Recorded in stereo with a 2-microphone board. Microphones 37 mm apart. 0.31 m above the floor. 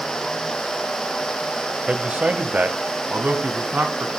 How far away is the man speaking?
About 1.2 m.